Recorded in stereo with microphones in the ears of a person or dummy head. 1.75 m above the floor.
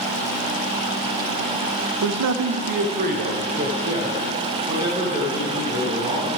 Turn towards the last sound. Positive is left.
turn(degrees=-10)  # may be behind; listen again after turning